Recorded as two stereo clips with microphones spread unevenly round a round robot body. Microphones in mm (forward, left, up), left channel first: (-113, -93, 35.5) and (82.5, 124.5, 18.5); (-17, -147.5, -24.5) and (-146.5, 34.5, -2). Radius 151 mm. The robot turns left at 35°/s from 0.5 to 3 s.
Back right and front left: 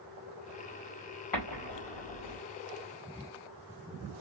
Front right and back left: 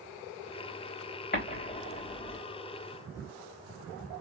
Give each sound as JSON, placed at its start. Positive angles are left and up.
{"t": 1.3, "sound": "an explosion", "azimuth_deg": -100, "distance_m": 3.0}